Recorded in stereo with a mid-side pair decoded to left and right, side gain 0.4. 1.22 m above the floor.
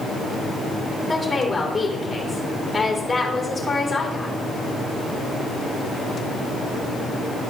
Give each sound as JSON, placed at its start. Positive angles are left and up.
{"t": 1.1, "sound": "a woman speaking", "azimuth_deg": 20, "distance_m": 3.5}